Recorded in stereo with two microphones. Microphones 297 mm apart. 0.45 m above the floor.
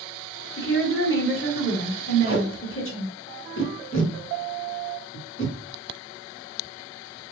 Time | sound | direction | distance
0.6 | a woman speaking | 45° left (ahead or behind) | 1.7 m
2.3 | tape being pulled | 45° left (ahead or behind) | 1.3 m